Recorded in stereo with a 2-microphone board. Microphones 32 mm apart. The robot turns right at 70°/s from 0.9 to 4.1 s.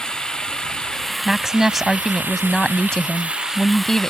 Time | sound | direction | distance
0.0 | running water | 155° left | ?
1.2 | a woman speaking | 20° right (ahead or behind) | ?